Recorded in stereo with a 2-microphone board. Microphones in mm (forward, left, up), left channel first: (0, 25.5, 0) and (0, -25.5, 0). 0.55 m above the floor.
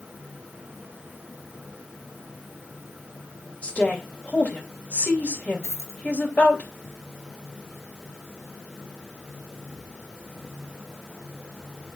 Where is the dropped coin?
75° left (ahead or behind), 2.5 m.